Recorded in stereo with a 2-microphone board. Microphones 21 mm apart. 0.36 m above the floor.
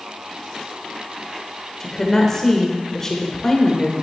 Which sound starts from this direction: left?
A woman speaking, at 1.8 s.